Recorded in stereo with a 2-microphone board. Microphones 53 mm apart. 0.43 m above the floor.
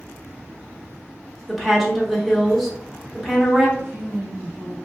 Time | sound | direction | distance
1.5 | a woman speaking | centre (ahead or behind) | 0.7 m
3.8 | a woman speaking | 60° right (ahead or behind) | 1.8 m